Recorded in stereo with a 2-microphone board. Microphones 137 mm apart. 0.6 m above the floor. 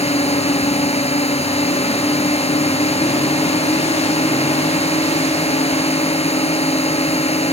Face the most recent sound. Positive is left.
turn(degrees=50)  # may be behind; listen again after turning